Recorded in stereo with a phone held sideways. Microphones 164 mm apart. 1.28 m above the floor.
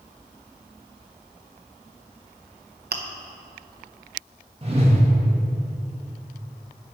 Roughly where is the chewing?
Right.